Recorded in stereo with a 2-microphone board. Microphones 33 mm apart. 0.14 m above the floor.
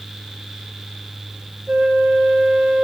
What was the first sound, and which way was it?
A flute, 45° right (ahead or behind).